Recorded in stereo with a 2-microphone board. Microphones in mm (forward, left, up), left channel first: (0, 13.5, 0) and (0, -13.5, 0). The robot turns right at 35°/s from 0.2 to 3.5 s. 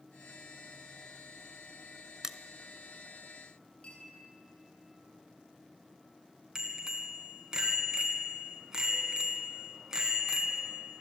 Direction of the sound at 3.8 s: 40° left (ahead or behind).